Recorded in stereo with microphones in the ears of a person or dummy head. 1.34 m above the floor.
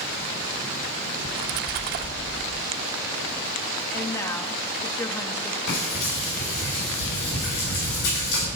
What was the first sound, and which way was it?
A splash, 50° right (ahead or behind).